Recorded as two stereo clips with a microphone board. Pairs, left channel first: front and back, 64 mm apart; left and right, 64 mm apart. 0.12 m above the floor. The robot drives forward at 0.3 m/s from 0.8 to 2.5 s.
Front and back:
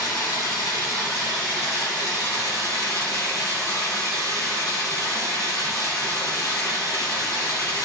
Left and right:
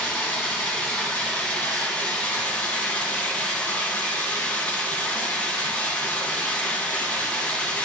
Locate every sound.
0.0 s running water: 20° left, 3 m; by 7.8 s 25° left, 2.5 m